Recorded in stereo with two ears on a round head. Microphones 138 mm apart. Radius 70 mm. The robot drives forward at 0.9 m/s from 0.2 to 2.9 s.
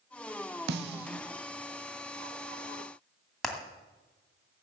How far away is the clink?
No clink in this recording.